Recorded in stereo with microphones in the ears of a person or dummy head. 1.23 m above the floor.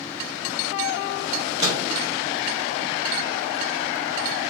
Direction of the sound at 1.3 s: 30° right (ahead or behind).